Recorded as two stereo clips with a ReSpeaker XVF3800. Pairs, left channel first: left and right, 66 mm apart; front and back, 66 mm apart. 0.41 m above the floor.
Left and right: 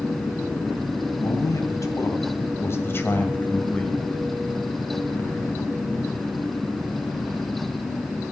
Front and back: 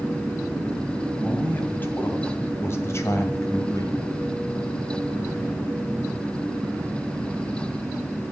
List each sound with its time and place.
1.2 s a man speaking: 65° left, 2.5 m; by 4.0 s 15° left, 1.6 m